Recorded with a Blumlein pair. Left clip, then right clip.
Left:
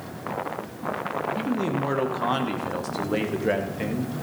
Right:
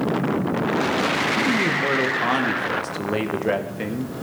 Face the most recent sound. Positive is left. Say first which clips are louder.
# right 7 dB
turn(degrees=-5)